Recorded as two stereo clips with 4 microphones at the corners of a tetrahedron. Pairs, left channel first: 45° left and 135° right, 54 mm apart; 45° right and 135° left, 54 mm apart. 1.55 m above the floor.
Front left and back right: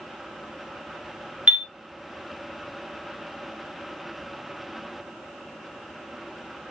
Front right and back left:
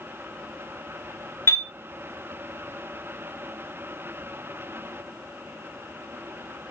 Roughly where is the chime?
Right.